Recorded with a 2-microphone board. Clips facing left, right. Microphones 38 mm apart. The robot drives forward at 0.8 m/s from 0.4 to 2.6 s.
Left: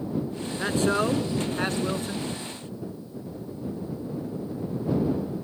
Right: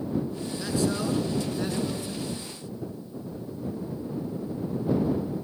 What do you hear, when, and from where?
0.6 s a man speaking: 40° left (ahead or behind), 2 m; by 2.3 s 50° left (ahead or behind), 1.9 m